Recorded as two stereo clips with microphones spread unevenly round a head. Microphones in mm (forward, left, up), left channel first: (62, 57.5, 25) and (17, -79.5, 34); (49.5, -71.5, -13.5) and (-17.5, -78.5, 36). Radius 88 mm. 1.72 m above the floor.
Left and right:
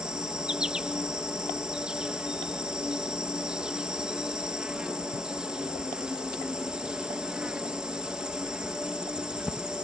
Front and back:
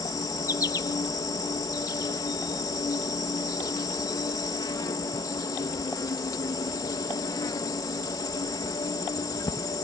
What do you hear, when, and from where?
0.0 s an insect: 25° right